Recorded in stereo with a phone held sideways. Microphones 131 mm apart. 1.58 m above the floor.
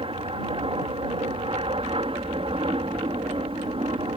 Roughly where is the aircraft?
Right.